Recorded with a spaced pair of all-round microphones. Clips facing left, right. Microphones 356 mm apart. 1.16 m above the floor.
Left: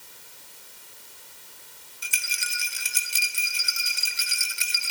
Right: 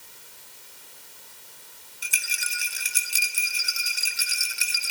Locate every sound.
2.0 s a rattle: 5° left (ahead or behind), 1.2 m